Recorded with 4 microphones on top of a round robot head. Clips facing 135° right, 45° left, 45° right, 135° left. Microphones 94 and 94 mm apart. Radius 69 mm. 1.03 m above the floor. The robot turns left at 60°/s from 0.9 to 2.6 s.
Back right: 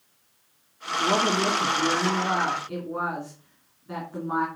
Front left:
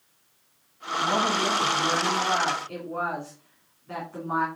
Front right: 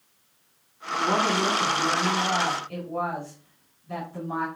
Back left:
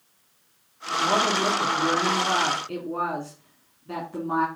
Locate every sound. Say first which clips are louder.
1.0 s a woman speaking: back right 2 dB, back left 1 dB; 120° right, 3 m; by 4.5 s 145° left, 3 m